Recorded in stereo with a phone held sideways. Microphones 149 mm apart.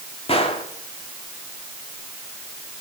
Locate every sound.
0.3 s a gunshot: 45° left (ahead or behind), 2.5 m